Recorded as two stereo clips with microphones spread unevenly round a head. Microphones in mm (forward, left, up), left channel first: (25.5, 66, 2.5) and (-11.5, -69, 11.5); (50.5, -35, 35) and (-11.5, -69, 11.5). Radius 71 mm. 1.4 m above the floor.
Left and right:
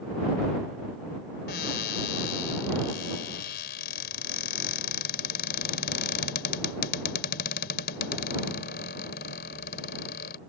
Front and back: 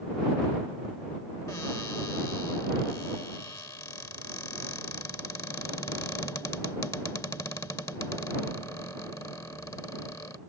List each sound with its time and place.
1.5 s a cupboard door: 90° left